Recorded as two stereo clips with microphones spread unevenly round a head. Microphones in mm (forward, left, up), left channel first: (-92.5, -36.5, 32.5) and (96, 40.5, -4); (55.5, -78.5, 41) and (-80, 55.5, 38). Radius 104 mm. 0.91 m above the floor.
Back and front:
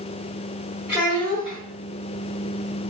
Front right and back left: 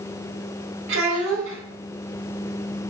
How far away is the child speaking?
About 0.9 m.